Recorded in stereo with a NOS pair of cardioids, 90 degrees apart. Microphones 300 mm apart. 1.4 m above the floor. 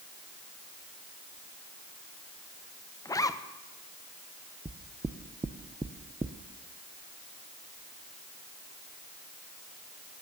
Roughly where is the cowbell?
I don't hear a cowbell.